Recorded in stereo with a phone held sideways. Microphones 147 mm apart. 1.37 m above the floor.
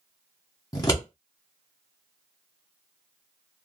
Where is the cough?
I don't hear a cough.